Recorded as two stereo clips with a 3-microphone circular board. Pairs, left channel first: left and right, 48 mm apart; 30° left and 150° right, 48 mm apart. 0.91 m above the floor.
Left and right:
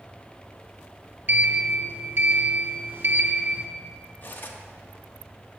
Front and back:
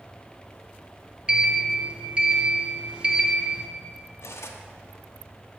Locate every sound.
1.3 s a sliding door: 90° right, 0.7 m
4.2 s cutlery clinking: 45° left, 0.7 m